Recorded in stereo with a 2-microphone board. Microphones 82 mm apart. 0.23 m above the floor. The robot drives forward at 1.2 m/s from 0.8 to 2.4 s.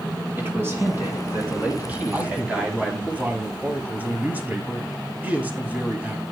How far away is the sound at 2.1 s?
About 1.6 m.